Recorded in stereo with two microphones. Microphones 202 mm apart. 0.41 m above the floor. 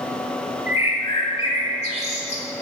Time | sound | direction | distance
0.7 | a bird | 30° left (ahead or behind) | 1.2 m